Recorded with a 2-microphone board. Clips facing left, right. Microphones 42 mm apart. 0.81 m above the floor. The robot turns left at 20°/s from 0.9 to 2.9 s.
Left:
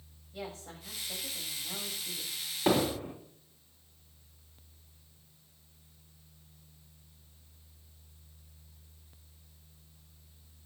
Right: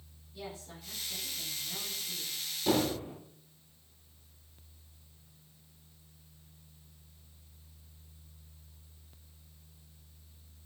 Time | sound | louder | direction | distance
0.3 | a woman speaking | left 2 dB | 75° left (ahead or behind) | 4.5 m
2.7 | hammering | left 2 dB | 60° left (ahead or behind) | 3.5 m